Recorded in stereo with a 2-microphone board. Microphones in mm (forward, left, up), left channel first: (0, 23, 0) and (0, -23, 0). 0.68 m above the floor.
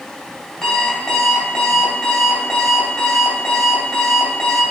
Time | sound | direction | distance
0.6 | an alarm clock | 5° left (ahead or behind) | 2 m